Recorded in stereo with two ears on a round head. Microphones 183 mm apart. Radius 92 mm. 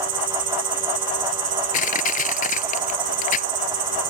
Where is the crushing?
40° left (ahead or behind).